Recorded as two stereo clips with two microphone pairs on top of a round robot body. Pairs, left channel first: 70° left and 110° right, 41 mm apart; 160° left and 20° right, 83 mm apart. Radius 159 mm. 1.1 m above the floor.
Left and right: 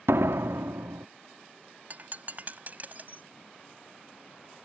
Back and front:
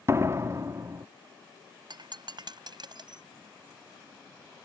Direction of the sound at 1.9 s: 60° right.